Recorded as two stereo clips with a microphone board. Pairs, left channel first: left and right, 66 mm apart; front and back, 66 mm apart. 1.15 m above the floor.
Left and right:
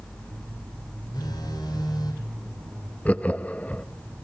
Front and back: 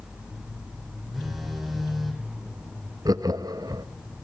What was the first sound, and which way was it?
A phone buzzing, 95° left.